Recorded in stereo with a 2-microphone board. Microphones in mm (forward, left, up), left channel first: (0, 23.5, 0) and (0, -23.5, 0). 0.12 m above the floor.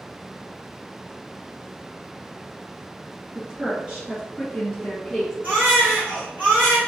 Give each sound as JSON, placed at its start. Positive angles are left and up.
{"t": 3.4, "sound": "a woman speaking", "side_deg": -35, "distance_m": 2.0}
{"t": 5.4, "sound": "a baby crying", "side_deg": -35, "distance_m": 1.9}